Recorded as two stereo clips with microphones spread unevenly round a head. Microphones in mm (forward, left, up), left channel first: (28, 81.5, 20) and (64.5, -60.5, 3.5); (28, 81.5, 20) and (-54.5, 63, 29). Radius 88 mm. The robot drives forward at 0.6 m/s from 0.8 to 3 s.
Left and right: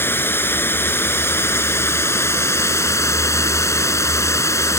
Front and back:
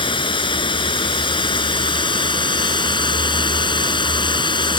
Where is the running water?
30° left; by 4.8 s 35° left.